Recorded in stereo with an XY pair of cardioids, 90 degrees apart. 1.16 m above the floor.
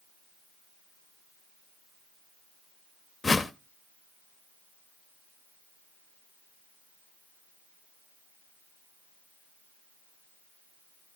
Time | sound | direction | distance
3.2 | a whoosh | 25° left | 1.0 m